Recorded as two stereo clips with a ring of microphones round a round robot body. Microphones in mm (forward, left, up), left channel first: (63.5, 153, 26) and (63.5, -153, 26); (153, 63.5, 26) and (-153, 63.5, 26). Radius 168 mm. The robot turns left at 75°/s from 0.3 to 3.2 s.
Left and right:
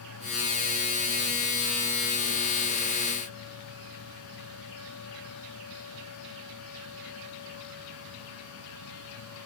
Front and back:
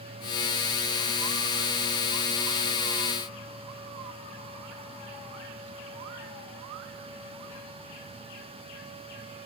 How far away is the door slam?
No door slam in this recording.